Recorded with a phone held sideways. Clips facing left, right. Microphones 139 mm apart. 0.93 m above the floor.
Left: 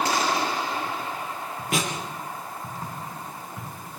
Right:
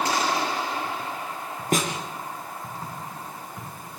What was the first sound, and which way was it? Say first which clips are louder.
A snare drum: right 3 dB; 45° right (ahead or behind).